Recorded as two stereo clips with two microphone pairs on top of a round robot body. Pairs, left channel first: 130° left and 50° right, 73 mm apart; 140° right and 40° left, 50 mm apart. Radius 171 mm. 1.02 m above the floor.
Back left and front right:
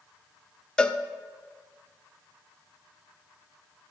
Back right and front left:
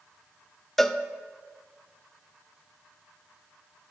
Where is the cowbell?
155° left, 0.5 m.